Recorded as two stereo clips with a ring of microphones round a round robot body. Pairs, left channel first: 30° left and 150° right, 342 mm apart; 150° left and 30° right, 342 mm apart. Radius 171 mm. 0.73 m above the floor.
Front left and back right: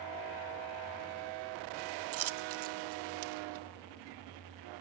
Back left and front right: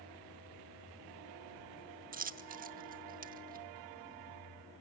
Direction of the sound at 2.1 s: 95° right.